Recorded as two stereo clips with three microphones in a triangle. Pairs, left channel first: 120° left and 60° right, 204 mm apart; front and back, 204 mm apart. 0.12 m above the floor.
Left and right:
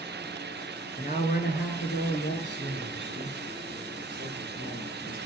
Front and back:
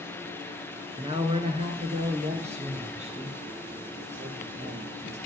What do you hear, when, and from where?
1.0 s a woman speaking: 130° left, 1.4 m; by 5.2 s 125° left, 4.5 m